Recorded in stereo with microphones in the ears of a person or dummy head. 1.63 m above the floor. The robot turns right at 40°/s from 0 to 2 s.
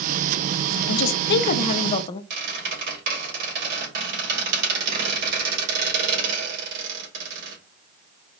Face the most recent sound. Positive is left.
turn(degrees=-55)  # may be behind; listen again after turning